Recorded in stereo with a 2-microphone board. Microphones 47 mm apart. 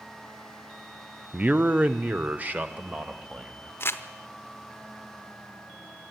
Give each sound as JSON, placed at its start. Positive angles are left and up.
{"t": 1.3, "sound": "a man speaking", "side_deg": -25, "distance_m": 0.7}
{"t": 3.8, "sound": "crumpling", "side_deg": 55, "distance_m": 0.9}